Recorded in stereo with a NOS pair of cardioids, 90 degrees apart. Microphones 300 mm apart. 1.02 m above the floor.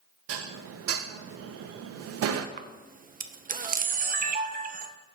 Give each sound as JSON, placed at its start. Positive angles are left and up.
{"t": 0.3, "sound": "dishes clattering", "azimuth_deg": -50, "distance_m": 0.6}
{"t": 2.6, "sound": "a camera shutter", "azimuth_deg": -30, "distance_m": 0.5}